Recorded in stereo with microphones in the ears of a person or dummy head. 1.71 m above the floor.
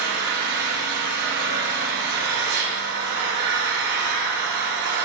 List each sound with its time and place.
0.0 s an engine running: 65° right (ahead or behind), 2 m